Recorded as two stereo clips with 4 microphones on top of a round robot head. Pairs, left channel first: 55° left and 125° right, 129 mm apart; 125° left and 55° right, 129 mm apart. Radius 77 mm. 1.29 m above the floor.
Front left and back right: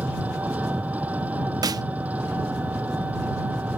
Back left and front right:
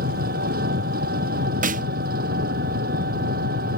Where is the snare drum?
65° right.